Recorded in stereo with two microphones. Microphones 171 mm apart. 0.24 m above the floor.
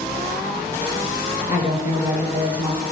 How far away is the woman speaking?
About 4 m.